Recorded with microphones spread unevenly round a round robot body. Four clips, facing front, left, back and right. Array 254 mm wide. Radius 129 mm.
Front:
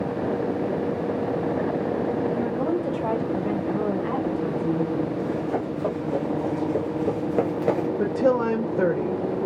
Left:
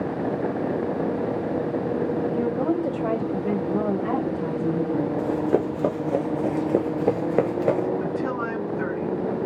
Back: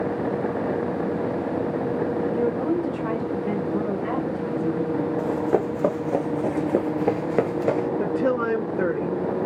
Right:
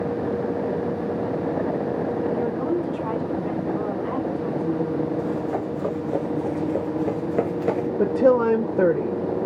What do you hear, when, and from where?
2.3 s a woman speaking: 60° left, 3 m; by 5.1 s 110° left, 1.5 m
5.2 s running footsteps: 140° left, 1.7 m; by 7.9 s 45° right, 0.9 m
8.0 s a woman speaking: 80° right, 0.9 m